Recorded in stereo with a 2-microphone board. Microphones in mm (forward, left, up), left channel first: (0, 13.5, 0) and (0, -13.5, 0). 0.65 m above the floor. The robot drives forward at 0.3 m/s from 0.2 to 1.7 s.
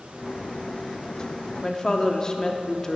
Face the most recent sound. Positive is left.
turn(degrees=30)  # may be behind; listen again after turning